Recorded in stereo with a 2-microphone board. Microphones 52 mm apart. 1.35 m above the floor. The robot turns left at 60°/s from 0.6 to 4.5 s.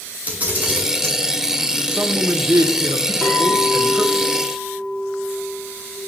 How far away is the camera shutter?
About 3 m.